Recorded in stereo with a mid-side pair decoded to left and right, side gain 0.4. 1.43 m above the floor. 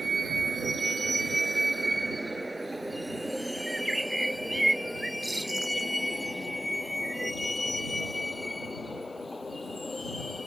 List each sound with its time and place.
0.0 s a vehicle: 45° right; by 10.5 s 20° left
3.7 s a bird: 15° right